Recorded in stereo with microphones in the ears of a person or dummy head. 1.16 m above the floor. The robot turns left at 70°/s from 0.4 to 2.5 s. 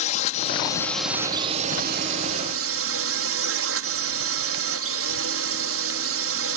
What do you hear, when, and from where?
0.0 s a drone: 45° left; by 6.6 s 105° right